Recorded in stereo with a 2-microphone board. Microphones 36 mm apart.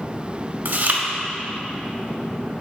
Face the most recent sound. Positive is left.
turn(degrees=-55)  # may be behind; listen again after turning